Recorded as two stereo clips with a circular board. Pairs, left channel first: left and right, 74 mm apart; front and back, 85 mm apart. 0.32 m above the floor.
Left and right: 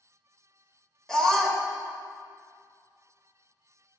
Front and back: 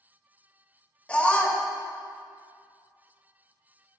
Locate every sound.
1.1 s a scream: 35° left, 0.8 m